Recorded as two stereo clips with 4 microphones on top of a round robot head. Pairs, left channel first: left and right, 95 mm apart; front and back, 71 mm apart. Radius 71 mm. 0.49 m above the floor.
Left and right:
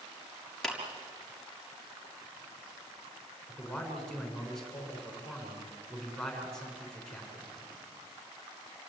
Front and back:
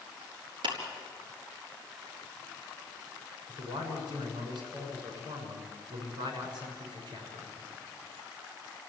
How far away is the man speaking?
About 7 m.